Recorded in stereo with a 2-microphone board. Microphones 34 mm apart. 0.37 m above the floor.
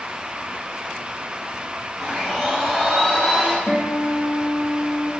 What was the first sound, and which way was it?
A blender, 5° left (ahead or behind).